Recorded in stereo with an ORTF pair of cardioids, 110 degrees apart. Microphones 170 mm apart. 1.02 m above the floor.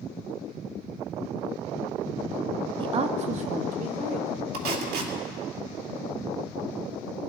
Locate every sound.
2.8 s a woman speaking: 30° right, 0.8 m; by 4.4 s 50° right, 2.5 m
4.5 s tape being pulled: 65° right, 2.5 m